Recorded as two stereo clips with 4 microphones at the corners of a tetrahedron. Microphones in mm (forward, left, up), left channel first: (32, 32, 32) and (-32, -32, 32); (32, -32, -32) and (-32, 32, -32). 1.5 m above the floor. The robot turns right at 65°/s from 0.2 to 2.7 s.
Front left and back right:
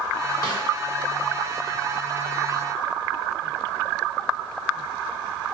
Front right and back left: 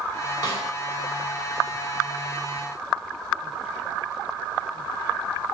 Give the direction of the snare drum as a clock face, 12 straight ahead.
12 o'clock.